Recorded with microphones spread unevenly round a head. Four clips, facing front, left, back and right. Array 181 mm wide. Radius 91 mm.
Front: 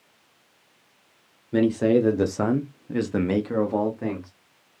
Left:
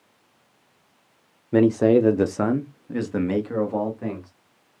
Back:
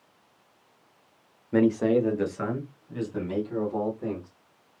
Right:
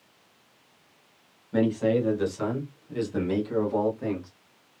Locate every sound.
1.5 s a man speaking: 100° left, 0.7 m; by 4.3 s 5° left, 1.5 m